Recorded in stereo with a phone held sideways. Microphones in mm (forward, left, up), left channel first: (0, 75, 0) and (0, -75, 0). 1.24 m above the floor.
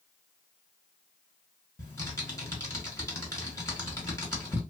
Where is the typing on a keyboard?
20° left (ahead or behind), 1.5 m.